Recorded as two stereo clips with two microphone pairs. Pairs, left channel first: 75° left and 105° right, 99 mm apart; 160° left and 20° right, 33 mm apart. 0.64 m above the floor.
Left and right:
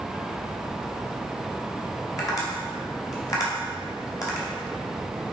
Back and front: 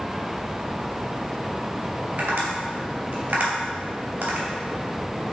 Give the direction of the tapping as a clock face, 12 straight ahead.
11 o'clock.